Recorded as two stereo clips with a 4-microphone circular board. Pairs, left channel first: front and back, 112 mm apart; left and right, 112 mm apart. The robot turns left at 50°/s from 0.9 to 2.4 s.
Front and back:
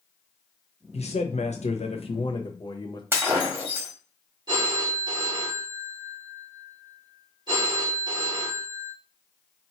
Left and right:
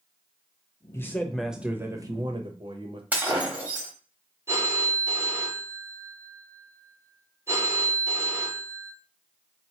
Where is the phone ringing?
145° right, 1.3 m.